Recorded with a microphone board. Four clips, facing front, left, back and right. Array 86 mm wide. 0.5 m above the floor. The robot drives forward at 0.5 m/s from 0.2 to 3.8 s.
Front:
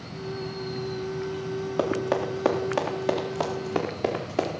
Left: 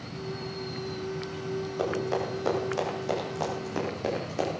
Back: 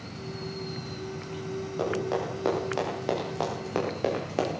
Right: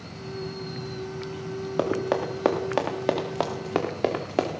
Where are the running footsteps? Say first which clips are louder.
Right 5 dB, front 3 dB; 55° right, 3 m; by 4.5 s 100° right, 3.5 m.